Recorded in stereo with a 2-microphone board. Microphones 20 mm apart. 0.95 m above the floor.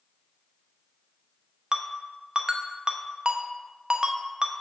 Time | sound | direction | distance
1.7 | a ringtone | 45° right (ahead or behind) | 0.7 m